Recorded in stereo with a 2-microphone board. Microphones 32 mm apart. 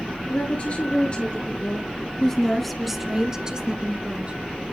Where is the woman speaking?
50° left (ahead or behind), 2.5 m; by 4.3 s 45° right (ahead or behind), 2 m.